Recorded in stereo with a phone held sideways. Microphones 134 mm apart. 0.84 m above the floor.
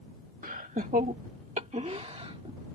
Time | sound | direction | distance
0.4 | laughter | 75° right (ahead or behind) | ?